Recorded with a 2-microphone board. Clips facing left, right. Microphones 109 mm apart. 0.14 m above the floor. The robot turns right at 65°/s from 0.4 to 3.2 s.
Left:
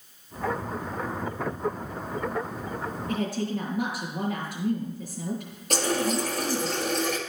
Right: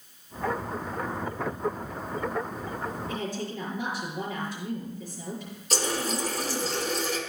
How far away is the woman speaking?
About 3.5 m.